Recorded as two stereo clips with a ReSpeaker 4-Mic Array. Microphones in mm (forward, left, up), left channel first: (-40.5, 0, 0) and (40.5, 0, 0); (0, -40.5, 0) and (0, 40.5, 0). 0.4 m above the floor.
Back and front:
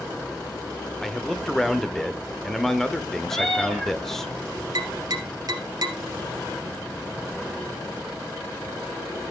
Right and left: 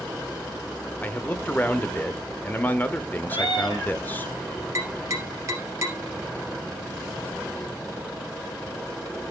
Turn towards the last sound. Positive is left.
turn(degrees=40)